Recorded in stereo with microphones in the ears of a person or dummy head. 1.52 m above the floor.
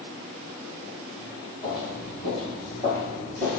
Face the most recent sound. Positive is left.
turn(degrees=-45)  # may be behind; listen again after turning